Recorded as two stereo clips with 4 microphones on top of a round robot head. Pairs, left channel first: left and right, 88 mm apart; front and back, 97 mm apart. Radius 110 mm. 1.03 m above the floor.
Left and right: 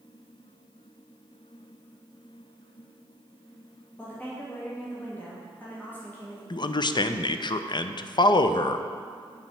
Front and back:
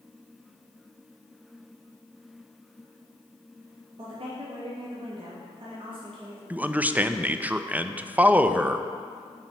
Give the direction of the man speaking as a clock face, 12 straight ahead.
8 o'clock.